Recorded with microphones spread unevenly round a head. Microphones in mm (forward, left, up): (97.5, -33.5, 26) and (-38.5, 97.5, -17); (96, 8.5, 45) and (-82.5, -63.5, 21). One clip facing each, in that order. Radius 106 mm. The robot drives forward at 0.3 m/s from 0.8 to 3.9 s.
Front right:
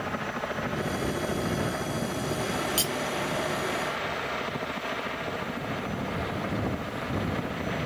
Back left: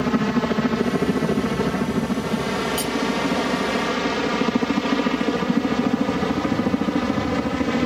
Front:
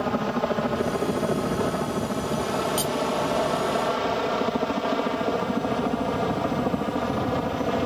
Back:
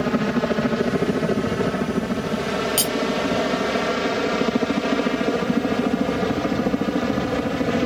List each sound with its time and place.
0.0 s a helicopter: 140° left; by 7.9 s 135° left
2.8 s cutlery clinking: 105° right; by 3.0 s 110° right